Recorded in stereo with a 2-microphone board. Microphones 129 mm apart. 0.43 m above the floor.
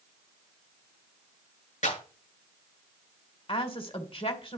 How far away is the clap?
About 6.5 m.